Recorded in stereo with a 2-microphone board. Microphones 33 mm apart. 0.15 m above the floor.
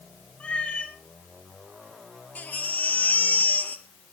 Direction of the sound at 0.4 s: 40° left (ahead or behind).